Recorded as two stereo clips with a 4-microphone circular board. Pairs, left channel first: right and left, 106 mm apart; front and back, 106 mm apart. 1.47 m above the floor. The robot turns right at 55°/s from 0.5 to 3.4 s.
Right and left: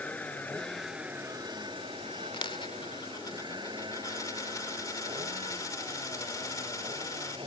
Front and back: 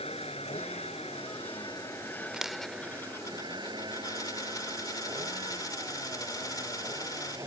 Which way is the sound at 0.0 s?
15° right.